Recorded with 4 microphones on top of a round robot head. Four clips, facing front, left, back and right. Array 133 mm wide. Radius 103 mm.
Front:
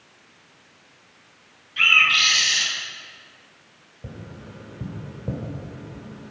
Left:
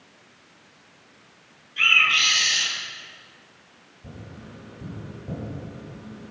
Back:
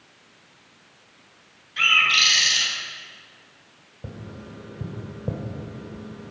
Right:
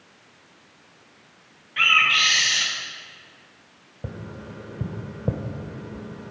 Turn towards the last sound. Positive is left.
turn(degrees=-100)